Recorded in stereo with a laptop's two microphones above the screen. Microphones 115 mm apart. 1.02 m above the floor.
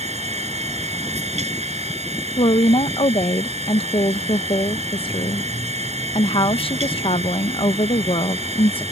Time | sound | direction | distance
0.0 | a machine running | 70° right (ahead or behind) | ?
2.4 | a woman speaking | 50° left (ahead or behind) | ?